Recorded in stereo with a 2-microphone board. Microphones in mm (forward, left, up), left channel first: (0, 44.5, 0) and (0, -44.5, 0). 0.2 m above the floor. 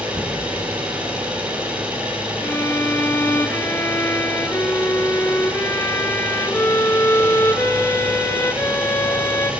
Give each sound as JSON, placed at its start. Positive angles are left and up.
{"t": 0.0, "sound": "an engine running", "side_deg": -15, "distance_m": 5.0}
{"t": 2.4, "sound": "a violin", "side_deg": 30, "distance_m": 1.0}